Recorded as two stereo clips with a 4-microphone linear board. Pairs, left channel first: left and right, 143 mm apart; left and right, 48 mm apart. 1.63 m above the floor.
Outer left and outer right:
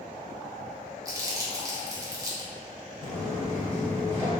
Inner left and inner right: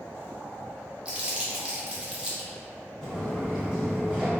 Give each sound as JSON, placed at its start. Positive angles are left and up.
{"t": 1.1, "sound": "crumpling", "side_deg": -25, "distance_m": 0.6}
{"t": 3.0, "sound": "footsteps", "side_deg": 5, "distance_m": 1.9}